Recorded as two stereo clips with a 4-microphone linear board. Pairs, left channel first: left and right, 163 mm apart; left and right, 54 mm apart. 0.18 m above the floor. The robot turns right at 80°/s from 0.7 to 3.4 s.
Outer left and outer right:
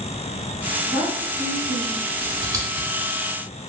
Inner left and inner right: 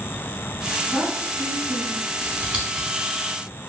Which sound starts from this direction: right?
Scissors, at 2.2 s.